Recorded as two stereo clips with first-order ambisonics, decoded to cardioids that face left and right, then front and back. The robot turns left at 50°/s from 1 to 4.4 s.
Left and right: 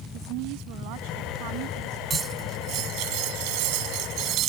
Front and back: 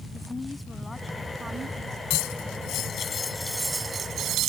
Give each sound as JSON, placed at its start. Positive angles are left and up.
{"t": 0.1, "sound": "a woman speaking", "azimuth_deg": -80}
{"t": 2.1, "sound": "cutlery clinking", "azimuth_deg": -20}